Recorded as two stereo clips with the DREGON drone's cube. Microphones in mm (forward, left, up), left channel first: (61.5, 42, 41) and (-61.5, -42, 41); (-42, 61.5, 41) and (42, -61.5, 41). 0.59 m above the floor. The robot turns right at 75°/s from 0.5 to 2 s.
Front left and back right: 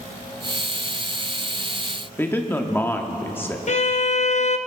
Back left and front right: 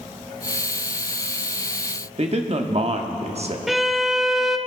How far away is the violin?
About 0.6 m.